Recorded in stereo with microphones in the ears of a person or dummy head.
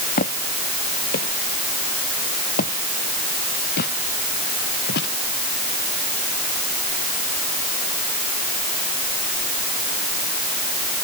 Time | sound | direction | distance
0.2 | footsteps | 50° left (ahead or behind) | ?